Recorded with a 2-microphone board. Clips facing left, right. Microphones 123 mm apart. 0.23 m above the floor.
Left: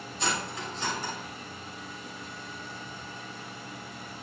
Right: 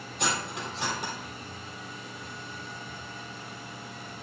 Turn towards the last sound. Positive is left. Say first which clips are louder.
# right 1 dB
turn(degrees=-70)  # may be behind; listen again after turning